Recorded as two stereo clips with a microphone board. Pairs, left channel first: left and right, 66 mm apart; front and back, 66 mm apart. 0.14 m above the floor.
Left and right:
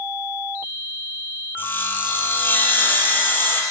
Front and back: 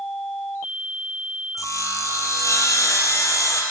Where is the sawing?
35° left, 2.5 m.